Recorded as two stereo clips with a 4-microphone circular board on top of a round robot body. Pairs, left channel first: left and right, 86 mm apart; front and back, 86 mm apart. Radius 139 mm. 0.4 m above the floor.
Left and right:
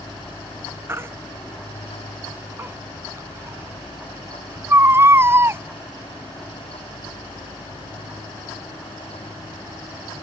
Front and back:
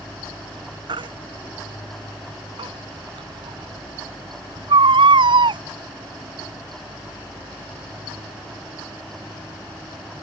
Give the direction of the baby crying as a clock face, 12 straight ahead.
5 o'clock.